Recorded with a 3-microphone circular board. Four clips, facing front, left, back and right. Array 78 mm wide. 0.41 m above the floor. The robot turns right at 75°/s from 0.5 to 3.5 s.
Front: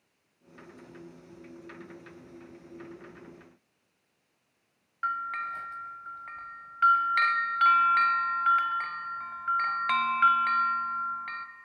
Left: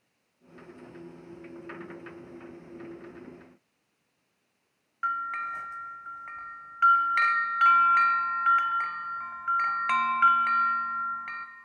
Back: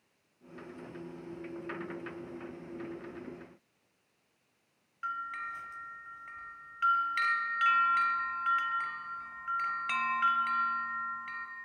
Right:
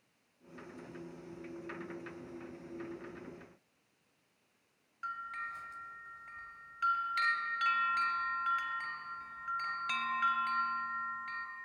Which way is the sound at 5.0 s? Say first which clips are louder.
Left 11 dB, front 6 dB; 50° left.